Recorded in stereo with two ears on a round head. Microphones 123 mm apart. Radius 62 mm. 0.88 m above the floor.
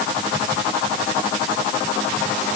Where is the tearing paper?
I don't hear tearing paper.